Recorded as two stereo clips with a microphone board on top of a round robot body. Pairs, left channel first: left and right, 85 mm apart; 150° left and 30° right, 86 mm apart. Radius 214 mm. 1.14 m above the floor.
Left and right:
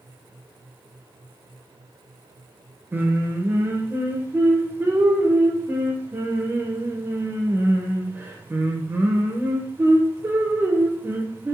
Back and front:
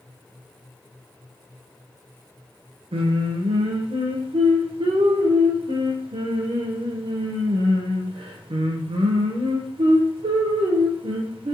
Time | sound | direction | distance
2.9 | singing | 20° right | 0.6 m